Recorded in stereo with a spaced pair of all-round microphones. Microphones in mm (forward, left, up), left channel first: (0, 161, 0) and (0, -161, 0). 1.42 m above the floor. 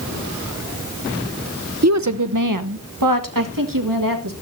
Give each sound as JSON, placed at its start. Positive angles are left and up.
{"t": 1.8, "sound": "a woman speaking", "side_deg": -50, "distance_m": 0.7}